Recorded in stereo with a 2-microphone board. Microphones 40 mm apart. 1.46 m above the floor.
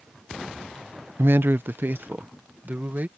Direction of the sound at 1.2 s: 65° right (ahead or behind).